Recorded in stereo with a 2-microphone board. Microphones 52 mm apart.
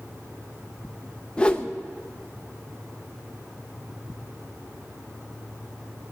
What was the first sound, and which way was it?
A whoosh, 20° left (ahead or behind).